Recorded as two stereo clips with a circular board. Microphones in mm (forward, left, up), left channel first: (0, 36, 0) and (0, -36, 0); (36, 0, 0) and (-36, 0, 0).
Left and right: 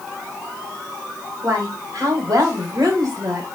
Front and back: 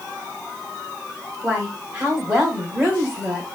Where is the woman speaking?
120° right, 2.5 m.